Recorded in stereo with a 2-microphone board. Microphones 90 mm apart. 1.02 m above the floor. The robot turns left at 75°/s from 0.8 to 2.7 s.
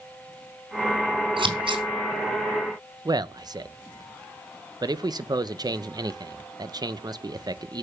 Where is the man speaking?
50° right (ahead or behind), 0.7 m.